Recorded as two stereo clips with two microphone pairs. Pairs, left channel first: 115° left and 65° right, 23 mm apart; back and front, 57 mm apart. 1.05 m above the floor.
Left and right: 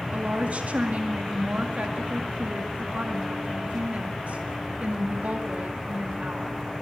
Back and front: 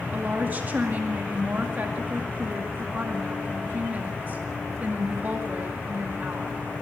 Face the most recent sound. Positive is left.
turn(degrees=-55)